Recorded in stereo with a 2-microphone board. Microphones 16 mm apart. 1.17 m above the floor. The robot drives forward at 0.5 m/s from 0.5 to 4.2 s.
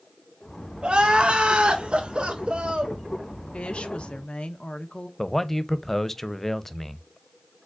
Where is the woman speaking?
70° left (ahead or behind), 0.9 m; by 5.1 s 75° left (ahead or behind), 0.8 m.